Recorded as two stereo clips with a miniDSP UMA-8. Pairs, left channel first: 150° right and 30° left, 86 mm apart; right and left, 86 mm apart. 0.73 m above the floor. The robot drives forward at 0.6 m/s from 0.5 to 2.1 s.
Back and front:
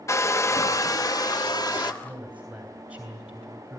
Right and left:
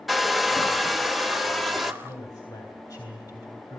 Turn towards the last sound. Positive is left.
turn(degrees=-45)